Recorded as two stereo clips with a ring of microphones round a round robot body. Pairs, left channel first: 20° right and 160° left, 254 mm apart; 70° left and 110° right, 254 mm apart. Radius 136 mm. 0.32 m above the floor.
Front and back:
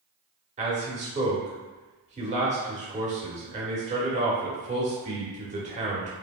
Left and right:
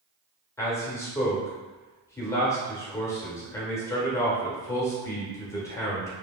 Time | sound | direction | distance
0.6 | a man speaking | 135° left | 0.9 m